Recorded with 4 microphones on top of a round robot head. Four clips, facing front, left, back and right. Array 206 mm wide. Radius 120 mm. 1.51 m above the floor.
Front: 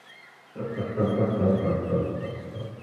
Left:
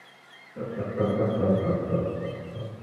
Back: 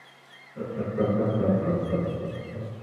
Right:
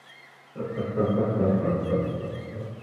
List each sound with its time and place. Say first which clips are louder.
0.6 s laughter: right 1 dB, even; 55° right, 1.5 m; by 2.7 s 135° right, 1.0 m